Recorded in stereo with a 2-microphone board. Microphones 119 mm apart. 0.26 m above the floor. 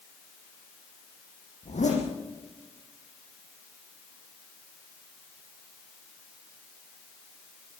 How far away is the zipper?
About 8.5 m.